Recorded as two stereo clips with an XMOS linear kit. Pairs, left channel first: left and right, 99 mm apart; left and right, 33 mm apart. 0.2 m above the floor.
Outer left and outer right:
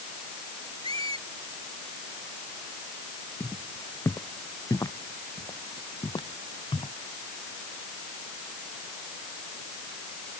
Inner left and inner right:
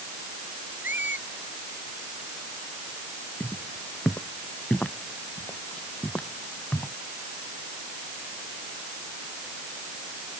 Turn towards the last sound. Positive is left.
turn(degrees=60)  # may be behind; listen again after turning